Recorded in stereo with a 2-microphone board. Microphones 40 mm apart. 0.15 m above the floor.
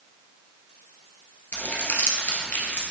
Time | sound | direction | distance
1.5 | crumpling | 65° left (ahead or behind) | 1.9 m